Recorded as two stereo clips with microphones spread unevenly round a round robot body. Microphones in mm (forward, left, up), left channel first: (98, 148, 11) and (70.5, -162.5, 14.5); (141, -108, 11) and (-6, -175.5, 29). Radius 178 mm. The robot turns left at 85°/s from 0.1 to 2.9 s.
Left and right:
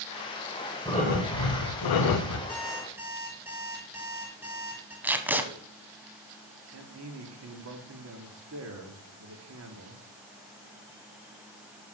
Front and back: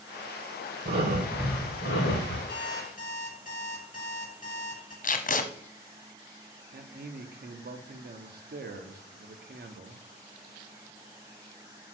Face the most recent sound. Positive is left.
turn(degrees=-140)